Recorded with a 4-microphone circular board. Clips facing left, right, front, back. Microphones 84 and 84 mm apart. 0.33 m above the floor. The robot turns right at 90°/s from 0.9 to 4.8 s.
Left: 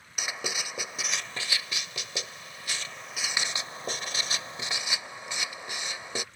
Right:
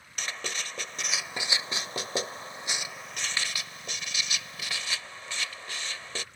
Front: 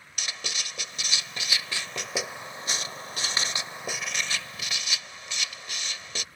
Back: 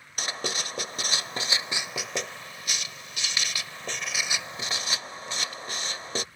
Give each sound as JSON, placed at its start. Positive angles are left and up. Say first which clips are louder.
{"t": 0.2, "sound": "writing", "louder": "left 1 dB, back 5 dB", "azimuth_deg": 165}